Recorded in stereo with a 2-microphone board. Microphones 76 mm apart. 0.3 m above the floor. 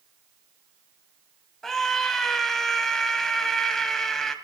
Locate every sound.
1.6 s a scream: 5° left (ahead or behind), 1.5 m